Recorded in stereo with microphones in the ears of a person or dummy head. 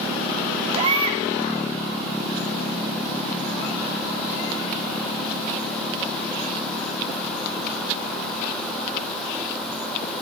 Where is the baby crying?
30° right (ahead or behind), 2 m.